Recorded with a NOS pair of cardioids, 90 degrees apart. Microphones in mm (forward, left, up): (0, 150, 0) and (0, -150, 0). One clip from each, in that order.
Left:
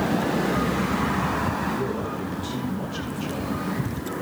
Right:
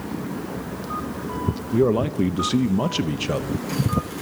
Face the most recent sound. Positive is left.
turn(degrees=-65)